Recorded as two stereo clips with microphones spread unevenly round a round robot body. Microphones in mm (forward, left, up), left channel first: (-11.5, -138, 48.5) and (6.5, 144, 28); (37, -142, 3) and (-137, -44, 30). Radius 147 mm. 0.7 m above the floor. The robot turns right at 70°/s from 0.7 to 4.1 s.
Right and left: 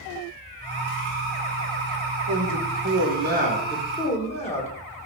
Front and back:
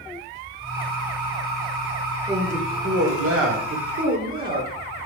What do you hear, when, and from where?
2.3 s a man speaking: 70° left, 2.5 m; by 4.7 s 165° right, 2.5 m